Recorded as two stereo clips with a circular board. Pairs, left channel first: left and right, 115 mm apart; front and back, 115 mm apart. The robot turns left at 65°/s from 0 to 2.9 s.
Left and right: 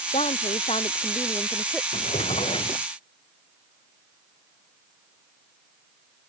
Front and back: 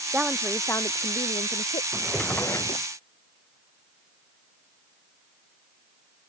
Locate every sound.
0.1 s a woman speaking: 105° left; by 1.8 s 5° right
1.9 s a drawer: 105° left; by 2.9 s 45° left